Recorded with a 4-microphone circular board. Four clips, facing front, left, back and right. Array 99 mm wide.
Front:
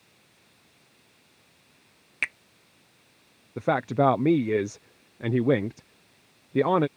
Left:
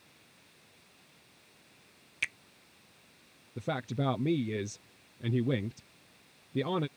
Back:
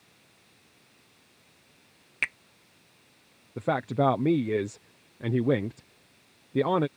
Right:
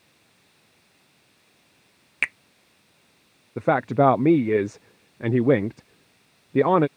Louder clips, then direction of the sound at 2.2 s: Right 10 dB, even; 90° right.